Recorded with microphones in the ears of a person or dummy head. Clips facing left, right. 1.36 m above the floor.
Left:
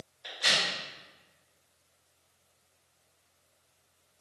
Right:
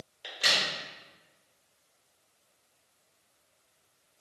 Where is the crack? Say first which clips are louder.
Even; 40° right (ahead or behind), 1.1 m.